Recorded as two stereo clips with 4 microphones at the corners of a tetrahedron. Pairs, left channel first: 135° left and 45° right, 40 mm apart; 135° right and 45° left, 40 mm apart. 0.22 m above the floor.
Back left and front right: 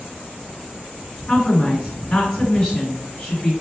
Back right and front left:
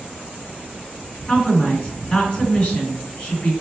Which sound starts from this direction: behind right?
A woman speaking, at 1.3 s.